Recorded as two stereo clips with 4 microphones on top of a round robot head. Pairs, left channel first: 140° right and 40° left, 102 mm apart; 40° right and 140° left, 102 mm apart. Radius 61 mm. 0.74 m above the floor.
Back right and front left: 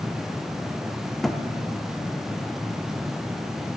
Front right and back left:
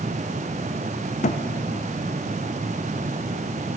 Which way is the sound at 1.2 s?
50° right.